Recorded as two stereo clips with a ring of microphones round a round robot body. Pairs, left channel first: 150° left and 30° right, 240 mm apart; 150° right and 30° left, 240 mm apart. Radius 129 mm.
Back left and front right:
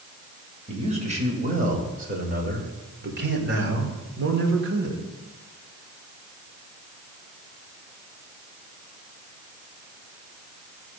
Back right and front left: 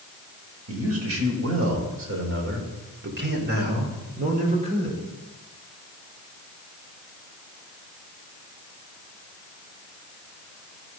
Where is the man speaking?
30° left, 2.5 m; by 5.0 s 35° right, 2.0 m.